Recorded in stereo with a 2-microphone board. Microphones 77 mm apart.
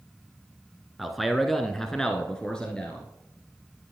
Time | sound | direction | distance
1.0 | a man speaking | centre (ahead or behind) | 1.1 m